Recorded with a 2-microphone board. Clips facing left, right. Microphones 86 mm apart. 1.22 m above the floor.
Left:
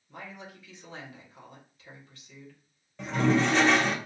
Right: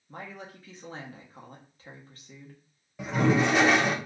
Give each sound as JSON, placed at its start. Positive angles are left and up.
{"t": 0.1, "sound": "a woman speaking", "side_deg": -40, "distance_m": 1.1}
{"t": 3.0, "sound": "a toilet flushing", "side_deg": -5, "distance_m": 0.5}